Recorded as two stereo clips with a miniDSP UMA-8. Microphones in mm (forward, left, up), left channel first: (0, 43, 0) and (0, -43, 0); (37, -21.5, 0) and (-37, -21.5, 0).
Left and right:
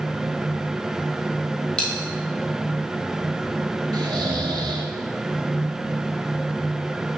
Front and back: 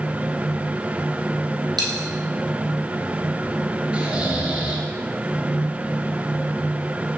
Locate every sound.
1.8 s a dropped coin: 165° left, 2 m
3.9 s snoring: 110° right, 1.2 m